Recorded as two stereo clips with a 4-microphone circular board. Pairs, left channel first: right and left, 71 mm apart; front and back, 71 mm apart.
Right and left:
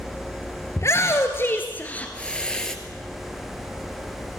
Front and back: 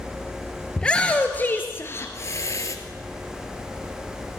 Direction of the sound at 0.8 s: 75° right.